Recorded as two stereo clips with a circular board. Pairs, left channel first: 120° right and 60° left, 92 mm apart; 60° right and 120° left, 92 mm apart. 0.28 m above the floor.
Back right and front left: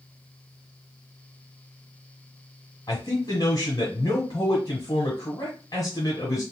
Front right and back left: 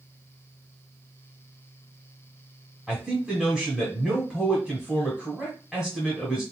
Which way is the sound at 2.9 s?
160° right.